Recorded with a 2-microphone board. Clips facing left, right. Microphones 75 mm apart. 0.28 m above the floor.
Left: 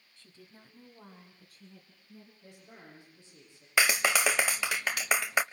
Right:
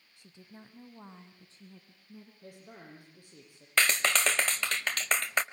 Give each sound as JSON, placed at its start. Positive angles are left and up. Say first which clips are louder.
{"t": 0.2, "sound": "a woman speaking", "louder": "right 3 dB", "side_deg": -15, "distance_m": 1.4}
{"t": 2.4, "sound": "a woman speaking", "louder": "right 5 dB", "side_deg": -55, "distance_m": 10.0}
{"t": 3.8, "sound": "a clap", "louder": "left 1 dB", "side_deg": 10, "distance_m": 0.7}